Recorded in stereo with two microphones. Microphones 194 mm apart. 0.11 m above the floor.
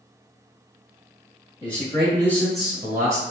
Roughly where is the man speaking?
Left.